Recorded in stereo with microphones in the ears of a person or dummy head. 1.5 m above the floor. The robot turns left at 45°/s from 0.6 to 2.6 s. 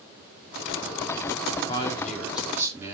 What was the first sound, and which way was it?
A man speaking, 30° left.